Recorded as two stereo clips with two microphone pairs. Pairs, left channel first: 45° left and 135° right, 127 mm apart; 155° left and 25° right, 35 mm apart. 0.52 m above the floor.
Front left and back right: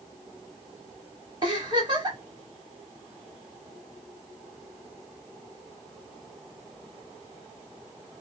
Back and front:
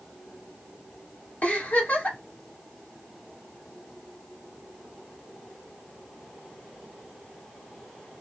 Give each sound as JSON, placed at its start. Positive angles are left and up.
{"t": 1.4, "sound": "a giggle", "azimuth_deg": -175, "distance_m": 1.7}